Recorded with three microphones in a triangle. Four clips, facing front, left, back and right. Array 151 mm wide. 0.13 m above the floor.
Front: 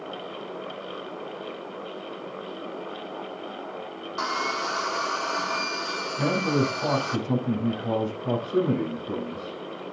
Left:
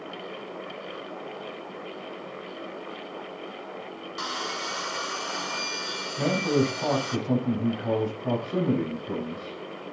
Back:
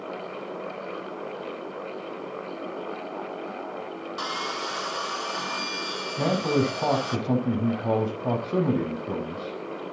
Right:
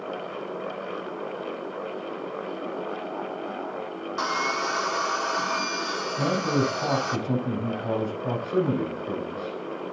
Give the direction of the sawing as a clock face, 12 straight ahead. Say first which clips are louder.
Right 7 dB, front 5 dB; 2 o'clock.